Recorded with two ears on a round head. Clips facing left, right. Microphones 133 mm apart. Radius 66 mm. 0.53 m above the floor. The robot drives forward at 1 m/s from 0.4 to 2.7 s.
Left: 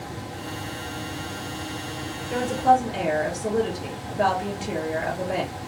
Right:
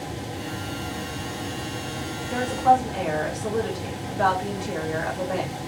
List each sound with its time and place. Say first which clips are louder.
2.3 s a woman speaking: even; 15° left (ahead or behind), 1.6 m